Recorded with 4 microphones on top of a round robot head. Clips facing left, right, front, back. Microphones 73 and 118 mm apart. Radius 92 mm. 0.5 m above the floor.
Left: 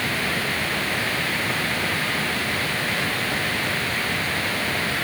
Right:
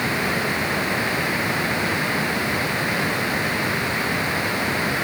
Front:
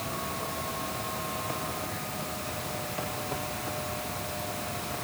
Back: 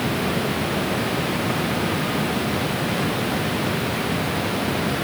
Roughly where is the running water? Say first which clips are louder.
Right 3 dB, back 12 dB; behind.